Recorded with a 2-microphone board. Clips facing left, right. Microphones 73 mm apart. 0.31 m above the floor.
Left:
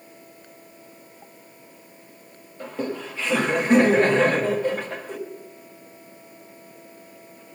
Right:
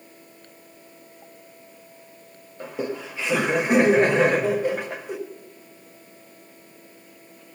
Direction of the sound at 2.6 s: 15° right (ahead or behind).